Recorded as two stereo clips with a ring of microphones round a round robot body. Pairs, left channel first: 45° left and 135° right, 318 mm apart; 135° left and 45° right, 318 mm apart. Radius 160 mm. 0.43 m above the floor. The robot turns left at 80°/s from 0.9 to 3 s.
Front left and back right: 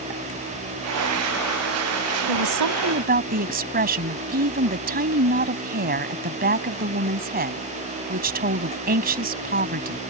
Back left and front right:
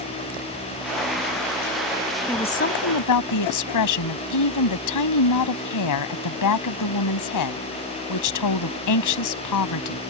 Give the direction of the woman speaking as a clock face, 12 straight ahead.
5 o'clock.